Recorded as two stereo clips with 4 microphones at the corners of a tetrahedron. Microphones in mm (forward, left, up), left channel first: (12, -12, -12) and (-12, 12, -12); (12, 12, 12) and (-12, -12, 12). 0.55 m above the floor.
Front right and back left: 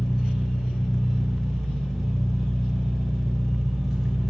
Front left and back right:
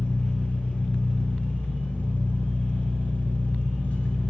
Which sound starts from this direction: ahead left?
An engine running, at 0.0 s.